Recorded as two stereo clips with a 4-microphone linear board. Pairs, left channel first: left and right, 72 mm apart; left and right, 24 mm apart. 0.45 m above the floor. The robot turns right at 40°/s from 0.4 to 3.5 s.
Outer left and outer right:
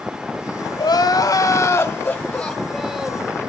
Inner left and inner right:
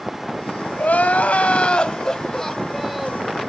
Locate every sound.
0.8 s crying: 100° left, 1.9 m; by 3.3 s 160° right, 1.9 m